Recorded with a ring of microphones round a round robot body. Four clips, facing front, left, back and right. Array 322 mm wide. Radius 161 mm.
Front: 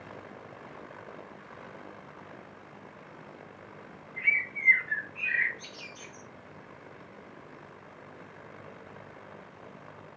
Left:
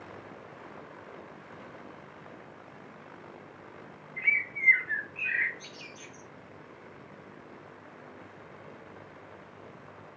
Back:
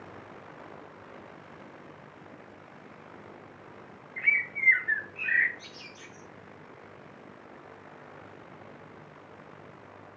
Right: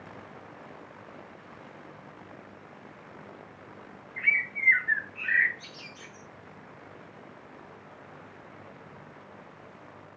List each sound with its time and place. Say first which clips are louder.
4.2 s a bird: right 2 dB, back 1 dB; 105° right, 5.5 m